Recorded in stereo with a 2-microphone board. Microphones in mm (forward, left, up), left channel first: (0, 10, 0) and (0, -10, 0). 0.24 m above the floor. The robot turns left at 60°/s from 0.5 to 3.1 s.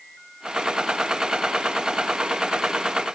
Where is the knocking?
No knocking in this recording.